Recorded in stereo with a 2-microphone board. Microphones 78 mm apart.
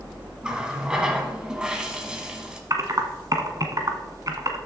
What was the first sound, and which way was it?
A running tap, 10° right (ahead or behind).